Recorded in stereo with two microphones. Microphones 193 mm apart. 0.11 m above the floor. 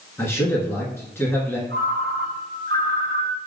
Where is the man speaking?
15° left (ahead or behind), 1.5 m.